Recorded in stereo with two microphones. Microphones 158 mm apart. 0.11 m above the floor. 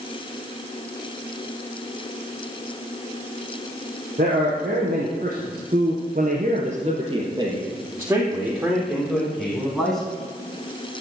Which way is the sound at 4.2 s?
50° right (ahead or behind).